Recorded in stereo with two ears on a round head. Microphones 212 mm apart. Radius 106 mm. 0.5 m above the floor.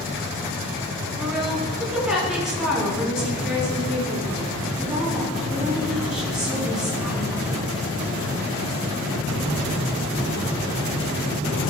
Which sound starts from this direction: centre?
A woman speaking, at 1.2 s.